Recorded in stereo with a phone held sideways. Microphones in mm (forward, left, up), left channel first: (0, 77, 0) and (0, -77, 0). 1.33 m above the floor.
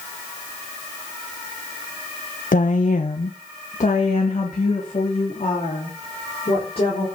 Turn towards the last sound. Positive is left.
turn(degrees=45)  # may be behind; listen again after turning